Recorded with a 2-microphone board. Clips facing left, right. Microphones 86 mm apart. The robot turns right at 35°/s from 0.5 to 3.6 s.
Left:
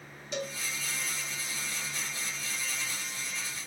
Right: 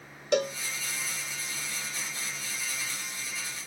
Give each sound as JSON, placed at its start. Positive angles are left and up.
{"t": 0.3, "sound": "a cowbell", "side_deg": -60, "distance_m": 1.0}